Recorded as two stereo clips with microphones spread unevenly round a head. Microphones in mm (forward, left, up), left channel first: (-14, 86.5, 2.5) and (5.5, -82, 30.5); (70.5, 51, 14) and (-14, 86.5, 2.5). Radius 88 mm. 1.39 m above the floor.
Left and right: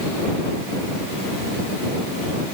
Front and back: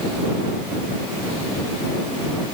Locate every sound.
Only background noise.